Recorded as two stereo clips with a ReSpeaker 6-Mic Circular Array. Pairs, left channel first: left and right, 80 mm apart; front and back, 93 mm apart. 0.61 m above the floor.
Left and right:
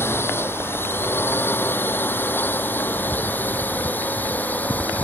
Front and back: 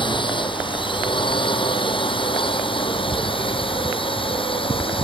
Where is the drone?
30° left; by 5.0 s 20° left.